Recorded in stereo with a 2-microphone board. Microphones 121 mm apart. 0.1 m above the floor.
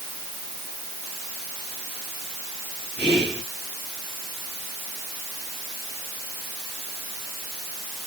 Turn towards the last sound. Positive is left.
turn(degrees=5)  # may be behind; listen again after turning